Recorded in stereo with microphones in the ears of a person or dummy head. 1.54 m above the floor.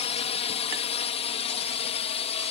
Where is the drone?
30° left (ahead or behind).